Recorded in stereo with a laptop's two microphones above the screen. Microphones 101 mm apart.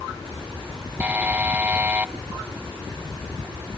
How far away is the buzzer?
About 0.7 m.